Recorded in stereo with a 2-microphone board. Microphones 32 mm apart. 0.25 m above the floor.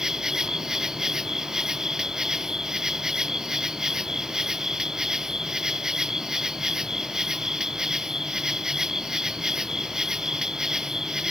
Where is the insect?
15° right (ahead or behind).